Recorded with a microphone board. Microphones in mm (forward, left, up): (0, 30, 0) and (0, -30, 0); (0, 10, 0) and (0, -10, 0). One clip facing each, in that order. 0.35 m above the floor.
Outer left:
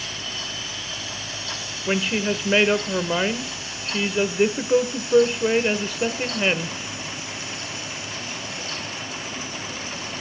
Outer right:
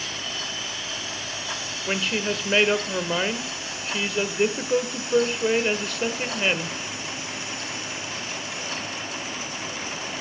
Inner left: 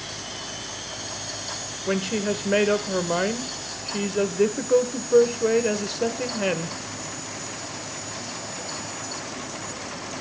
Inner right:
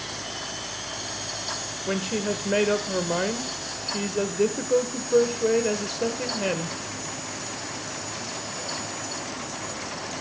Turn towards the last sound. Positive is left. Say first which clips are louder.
# outer left 3 dB, inner left 2 dB
turn(degrees=10)  # may be behind; listen again after turning